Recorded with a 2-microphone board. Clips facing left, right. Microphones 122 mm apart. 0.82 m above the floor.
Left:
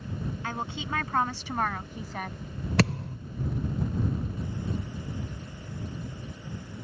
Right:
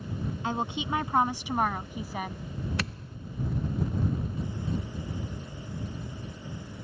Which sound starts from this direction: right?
A woman speaking, at 0.4 s.